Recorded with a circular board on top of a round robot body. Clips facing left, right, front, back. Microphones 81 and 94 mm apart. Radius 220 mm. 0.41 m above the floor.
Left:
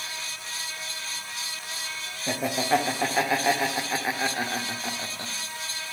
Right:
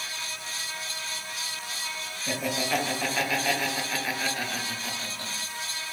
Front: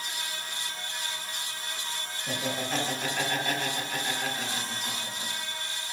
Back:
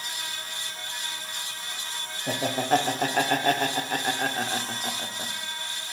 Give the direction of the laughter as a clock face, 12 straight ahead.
7 o'clock.